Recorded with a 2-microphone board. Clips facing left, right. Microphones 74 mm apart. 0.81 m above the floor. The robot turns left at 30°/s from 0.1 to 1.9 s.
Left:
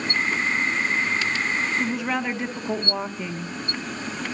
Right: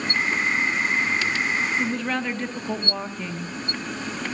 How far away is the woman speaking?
About 0.8 m.